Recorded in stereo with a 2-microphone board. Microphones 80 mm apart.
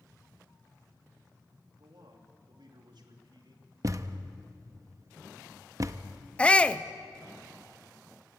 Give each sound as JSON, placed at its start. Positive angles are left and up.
{"t": 1.8, "sound": "a man speaking", "side_deg": -75, "distance_m": 3.0}
{"t": 3.8, "sound": "a thud", "side_deg": -45, "distance_m": 0.8}
{"t": 6.4, "sound": "a shout", "side_deg": 15, "distance_m": 0.6}